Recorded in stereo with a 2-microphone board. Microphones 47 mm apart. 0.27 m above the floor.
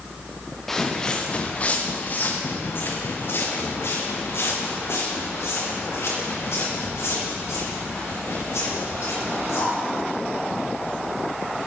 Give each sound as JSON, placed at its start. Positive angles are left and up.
{"t": 0.7, "sound": "footsteps", "side_deg": 5, "distance_m": 1.8}